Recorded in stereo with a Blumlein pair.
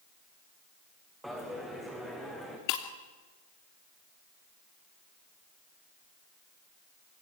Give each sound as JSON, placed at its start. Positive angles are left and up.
{"t": 1.2, "sound": "a dropped coin", "azimuth_deg": -5, "distance_m": 6.5}
{"t": 2.7, "sound": "breaking glass", "azimuth_deg": 40, "distance_m": 2.5}